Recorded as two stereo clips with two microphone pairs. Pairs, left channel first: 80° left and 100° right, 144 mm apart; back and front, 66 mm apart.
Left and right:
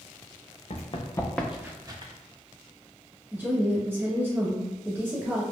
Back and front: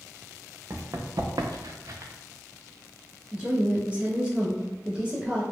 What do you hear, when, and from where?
0.7 s running footsteps: 40° left, 0.6 m; by 2.1 s 45° right, 0.7 m
3.3 s a woman speaking: 40° right, 1.1 m